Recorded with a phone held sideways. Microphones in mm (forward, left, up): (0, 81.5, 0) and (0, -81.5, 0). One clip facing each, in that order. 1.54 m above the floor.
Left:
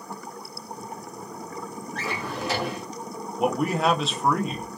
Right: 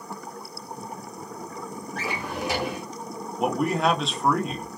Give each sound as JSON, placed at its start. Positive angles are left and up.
{"t": 1.9, "sound": "a drawer", "side_deg": -10, "distance_m": 1.0}
{"t": 3.4, "sound": "a man speaking", "side_deg": 0, "distance_m": 0.6}